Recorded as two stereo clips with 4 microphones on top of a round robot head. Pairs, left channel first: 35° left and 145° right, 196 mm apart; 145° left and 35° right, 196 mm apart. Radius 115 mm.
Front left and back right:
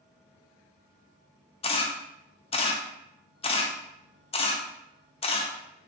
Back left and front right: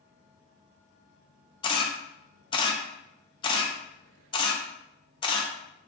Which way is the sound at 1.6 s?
85° left.